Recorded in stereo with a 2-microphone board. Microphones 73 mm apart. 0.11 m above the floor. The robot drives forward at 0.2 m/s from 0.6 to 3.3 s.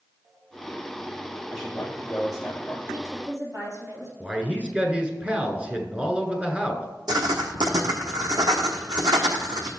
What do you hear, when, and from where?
1.5 s a man speaking: centre (ahead or behind), 2.5 m
2.9 s a woman speaking: 50° right (ahead or behind), 3 m
4.2 s a man speaking: 15° right (ahead or behind), 1.1 m
7.1 s writing: 65° right (ahead or behind), 1.1 m